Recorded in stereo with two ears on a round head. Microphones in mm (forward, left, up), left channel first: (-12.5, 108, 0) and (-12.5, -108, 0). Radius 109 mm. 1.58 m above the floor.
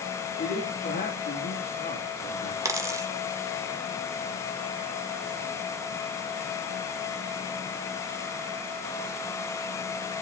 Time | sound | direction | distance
0.4 | a man speaking | 35° left (ahead or behind) | 3 m
2.6 | a dropped coin | 15° right (ahead or behind) | 1.3 m